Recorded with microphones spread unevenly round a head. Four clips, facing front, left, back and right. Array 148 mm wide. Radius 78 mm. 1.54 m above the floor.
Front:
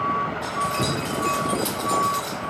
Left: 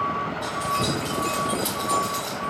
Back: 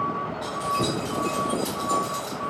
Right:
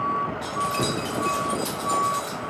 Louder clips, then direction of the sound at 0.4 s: Even, front 1 dB; 115° right.